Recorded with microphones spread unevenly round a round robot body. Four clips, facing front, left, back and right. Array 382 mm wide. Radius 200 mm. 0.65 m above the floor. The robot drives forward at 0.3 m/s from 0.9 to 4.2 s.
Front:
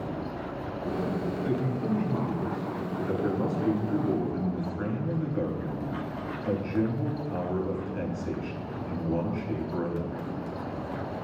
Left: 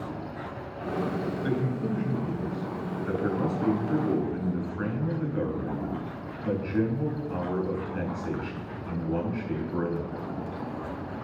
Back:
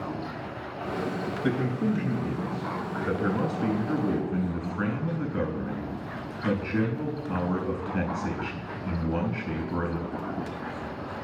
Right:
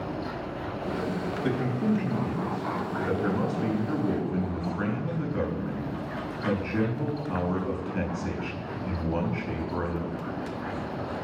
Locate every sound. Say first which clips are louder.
1.4 s a man speaking: right 4 dB, back 4 dB; 160° right, 4 m; by 10.2 s 165° right, 5 m